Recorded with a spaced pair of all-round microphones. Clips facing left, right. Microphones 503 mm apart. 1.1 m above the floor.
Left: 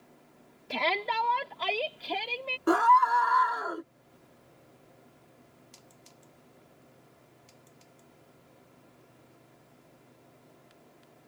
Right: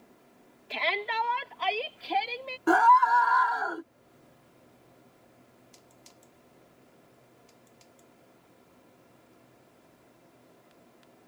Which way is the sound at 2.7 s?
10° right (ahead or behind).